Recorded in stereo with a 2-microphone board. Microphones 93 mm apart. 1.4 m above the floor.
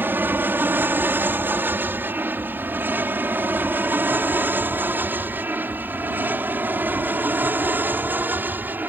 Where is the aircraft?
20° right (ahead or behind).